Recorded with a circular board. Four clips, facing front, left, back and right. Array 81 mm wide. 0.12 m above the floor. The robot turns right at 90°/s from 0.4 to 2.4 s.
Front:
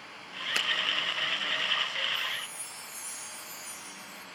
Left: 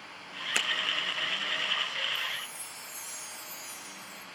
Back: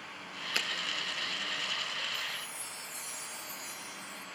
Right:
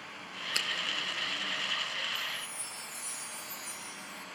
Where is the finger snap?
70° left, 1.1 m; by 0.7 s 85° left, 1.1 m.